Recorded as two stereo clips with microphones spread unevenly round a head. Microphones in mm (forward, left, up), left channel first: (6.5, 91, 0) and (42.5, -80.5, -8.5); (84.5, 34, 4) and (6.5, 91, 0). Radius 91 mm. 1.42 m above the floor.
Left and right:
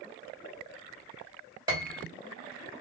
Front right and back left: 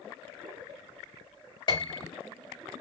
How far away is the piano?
About 1.6 m.